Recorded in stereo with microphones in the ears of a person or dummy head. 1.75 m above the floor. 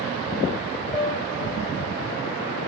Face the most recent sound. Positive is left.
turn(degrees=5)  # may be behind; listen again after turning